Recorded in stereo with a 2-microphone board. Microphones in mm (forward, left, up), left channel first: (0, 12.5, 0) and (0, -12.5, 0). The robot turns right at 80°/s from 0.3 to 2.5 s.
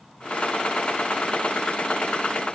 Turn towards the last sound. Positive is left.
No sound to turn to.